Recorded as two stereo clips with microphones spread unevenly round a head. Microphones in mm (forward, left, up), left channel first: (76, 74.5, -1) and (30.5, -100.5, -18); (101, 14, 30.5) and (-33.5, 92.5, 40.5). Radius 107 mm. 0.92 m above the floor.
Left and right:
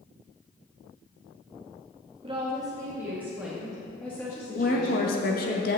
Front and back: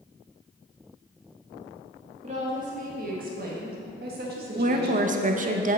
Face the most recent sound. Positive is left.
turn(degrees=120)